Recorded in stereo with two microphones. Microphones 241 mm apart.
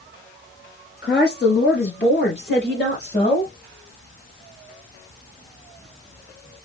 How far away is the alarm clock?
I don't hear an alarm clock.